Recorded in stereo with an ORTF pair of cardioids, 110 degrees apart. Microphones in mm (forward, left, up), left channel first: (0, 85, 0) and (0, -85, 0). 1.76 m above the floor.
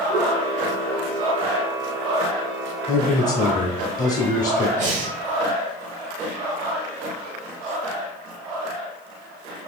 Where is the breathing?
50° right, 0.7 m.